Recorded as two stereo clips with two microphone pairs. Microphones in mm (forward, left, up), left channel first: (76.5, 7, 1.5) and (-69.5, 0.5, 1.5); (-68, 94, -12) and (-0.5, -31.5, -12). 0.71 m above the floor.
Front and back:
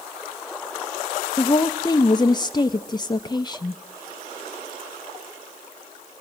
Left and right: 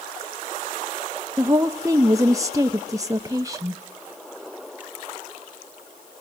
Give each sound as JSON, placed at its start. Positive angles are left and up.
{"t": 1.4, "sound": "a woman speaking", "azimuth_deg": -10, "distance_m": 0.5}